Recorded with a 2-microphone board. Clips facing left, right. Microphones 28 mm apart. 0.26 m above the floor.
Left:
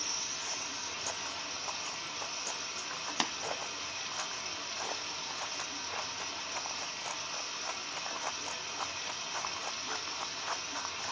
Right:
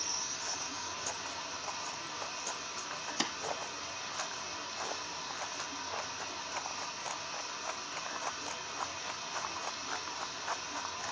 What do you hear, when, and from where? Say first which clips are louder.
0.0 s running water: left 1 dB; 80° left, 2.5 m
3.2 s tapping: left 2 dB; 40° left (ahead or behind), 1.2 m